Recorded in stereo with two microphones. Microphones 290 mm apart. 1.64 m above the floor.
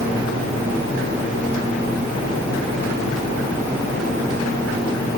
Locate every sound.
Only background noise.